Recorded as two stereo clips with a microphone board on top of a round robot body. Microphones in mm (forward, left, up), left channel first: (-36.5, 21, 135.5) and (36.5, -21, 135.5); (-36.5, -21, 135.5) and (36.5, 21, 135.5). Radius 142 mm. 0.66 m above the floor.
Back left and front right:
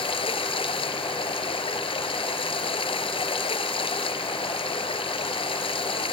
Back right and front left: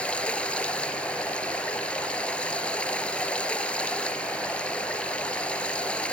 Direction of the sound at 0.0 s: 135° left.